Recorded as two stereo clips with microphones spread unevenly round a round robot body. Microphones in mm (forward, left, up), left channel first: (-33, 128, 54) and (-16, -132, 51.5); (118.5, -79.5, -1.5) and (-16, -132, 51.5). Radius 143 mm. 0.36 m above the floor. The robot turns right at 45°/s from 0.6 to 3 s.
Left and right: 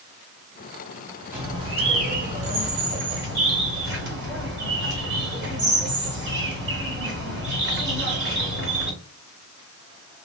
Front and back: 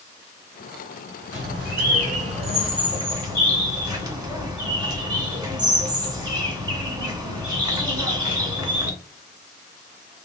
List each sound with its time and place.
1.3 s a bird: 165° right, 1.8 m; by 8.9 s 85° right, 1.8 m